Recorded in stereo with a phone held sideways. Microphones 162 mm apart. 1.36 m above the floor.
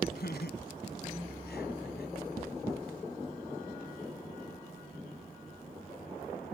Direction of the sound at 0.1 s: 80° left.